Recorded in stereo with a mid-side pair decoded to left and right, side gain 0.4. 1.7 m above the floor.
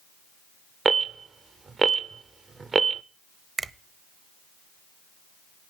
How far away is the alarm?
About 0.7 m.